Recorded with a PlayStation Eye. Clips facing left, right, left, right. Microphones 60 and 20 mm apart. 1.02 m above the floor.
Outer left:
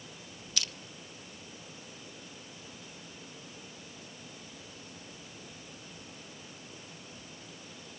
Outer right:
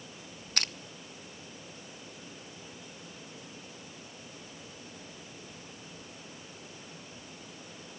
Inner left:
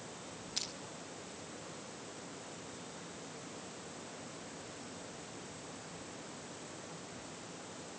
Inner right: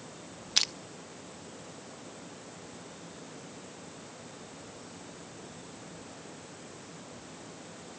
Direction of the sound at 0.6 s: 45° right (ahead or behind).